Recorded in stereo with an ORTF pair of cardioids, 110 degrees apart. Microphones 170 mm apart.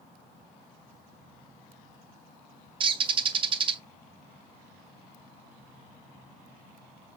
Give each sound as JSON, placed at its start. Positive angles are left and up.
{"t": 2.8, "sound": "a bird", "azimuth_deg": -30, "distance_m": 0.5}